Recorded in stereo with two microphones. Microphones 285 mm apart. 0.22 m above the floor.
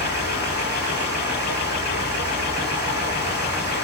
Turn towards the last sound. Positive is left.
turn(degrees=40)  # may be behind; listen again after turning